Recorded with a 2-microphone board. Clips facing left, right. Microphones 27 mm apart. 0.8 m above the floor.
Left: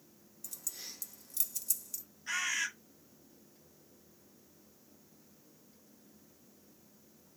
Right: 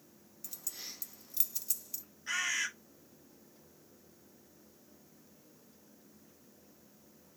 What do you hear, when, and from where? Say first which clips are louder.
0.4 s keys jangling: even; 15° right (ahead or behind), 0.5 m
2.3 s a bird: even; 5° right (ahead or behind), 1.5 m